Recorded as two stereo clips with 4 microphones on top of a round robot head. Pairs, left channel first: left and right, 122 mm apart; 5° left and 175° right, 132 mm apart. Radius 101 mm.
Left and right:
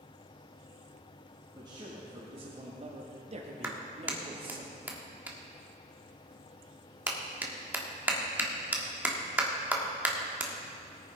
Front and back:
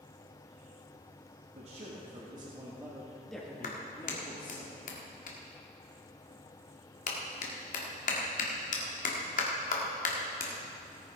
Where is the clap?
15° right, 1.7 m.